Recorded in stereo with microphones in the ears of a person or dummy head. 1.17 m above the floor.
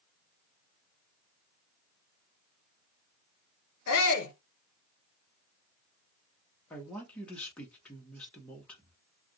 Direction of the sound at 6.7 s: 5° left (ahead or behind).